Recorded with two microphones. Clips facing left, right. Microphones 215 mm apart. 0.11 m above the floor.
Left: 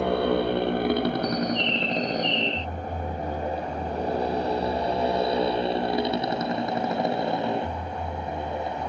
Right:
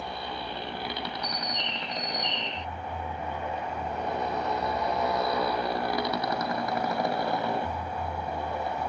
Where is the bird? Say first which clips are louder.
Left 11 dB; 15° right (ahead or behind).